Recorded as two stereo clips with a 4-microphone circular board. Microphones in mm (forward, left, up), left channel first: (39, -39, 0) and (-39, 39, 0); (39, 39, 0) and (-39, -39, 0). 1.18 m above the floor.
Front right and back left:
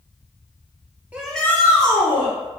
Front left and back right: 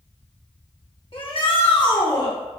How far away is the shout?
About 1.0 m.